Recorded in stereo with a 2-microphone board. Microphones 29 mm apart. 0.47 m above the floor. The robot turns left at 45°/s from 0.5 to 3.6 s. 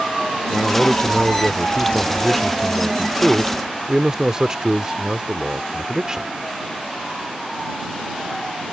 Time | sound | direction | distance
0.5 | a man speaking | 100° left | ?